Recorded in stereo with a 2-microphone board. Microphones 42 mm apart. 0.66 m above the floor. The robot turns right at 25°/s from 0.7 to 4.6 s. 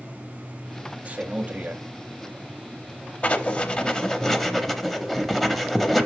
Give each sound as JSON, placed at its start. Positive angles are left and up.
{"t": 1.1, "sound": "a man speaking", "side_deg": -35, "distance_m": 0.7}
{"t": 3.2, "sound": "writing", "side_deg": 30, "distance_m": 0.7}